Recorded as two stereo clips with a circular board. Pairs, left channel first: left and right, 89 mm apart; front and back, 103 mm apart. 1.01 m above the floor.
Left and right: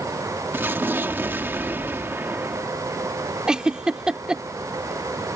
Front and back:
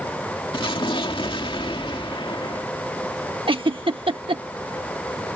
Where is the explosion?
25° right.